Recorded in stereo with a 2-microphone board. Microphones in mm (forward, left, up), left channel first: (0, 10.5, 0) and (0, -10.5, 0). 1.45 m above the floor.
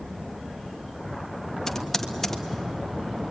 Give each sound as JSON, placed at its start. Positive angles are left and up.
{"t": 1.7, "sound": "typing on a keyboard", "side_deg": 15, "distance_m": 1.5}